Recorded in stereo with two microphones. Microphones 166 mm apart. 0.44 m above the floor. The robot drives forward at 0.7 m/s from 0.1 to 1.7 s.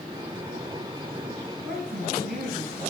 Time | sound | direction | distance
1.6 | a woman speaking | 80° right | 7 m